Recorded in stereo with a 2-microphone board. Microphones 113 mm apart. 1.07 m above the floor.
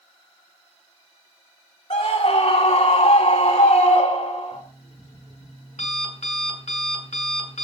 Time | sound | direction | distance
1.9 | a scream | 65° left (ahead or behind) | 3 m
4.5 | an alarm clock | 85° left | 6.5 m